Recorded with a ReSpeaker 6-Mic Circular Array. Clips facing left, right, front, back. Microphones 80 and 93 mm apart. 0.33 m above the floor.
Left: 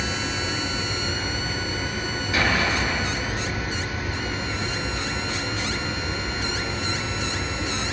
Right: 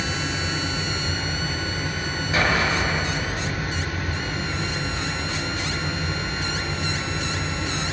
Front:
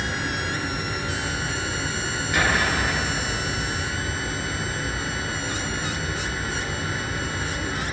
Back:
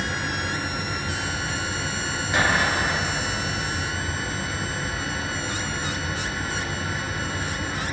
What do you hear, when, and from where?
0.0 s running water: 90° right, 1.8 m
2.3 s an explosion: 130° right, 0.8 m